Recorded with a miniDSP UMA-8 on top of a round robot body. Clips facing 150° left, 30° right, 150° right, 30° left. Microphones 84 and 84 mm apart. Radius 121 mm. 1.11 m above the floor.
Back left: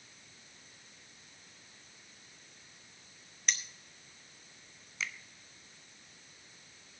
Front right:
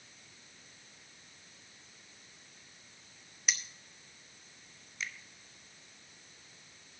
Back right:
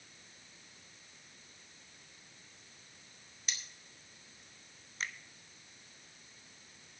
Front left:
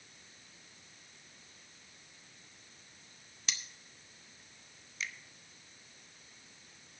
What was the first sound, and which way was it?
Cutlery clinking, 55° left.